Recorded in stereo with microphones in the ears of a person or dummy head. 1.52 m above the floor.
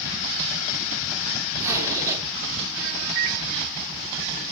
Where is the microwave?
60° right (ahead or behind), 1.3 m.